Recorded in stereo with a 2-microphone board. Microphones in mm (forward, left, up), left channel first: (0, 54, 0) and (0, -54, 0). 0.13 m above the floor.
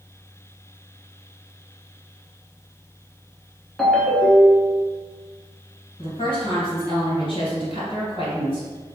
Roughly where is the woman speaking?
Left.